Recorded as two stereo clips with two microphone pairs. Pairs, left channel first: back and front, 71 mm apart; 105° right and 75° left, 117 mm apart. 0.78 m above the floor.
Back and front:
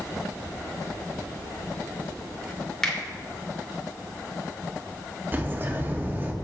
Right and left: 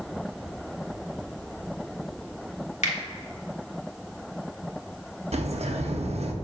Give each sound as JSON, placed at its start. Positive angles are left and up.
{"t": 2.8, "sound": "a finger snap", "azimuth_deg": -100, "distance_m": 1.8}
{"t": 5.3, "sound": "a bird", "azimuth_deg": 60, "distance_m": 0.9}